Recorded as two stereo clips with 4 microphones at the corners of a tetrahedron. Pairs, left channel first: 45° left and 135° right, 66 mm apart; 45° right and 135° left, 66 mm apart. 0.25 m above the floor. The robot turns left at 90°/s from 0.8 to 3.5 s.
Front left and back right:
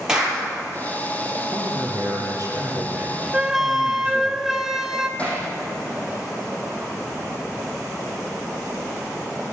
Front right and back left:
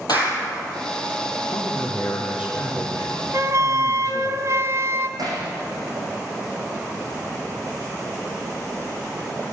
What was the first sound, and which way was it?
A clap, 55° right.